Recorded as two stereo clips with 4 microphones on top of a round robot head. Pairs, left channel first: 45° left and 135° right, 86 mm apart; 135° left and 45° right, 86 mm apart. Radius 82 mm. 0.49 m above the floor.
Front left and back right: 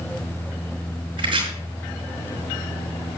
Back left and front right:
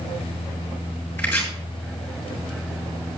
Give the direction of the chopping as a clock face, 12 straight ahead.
5 o'clock.